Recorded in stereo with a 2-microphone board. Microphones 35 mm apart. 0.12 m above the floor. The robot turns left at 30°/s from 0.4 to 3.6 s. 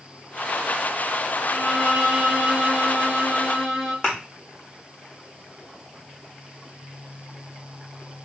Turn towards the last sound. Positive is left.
turn(degrees=20)  # may be behind; listen again after turning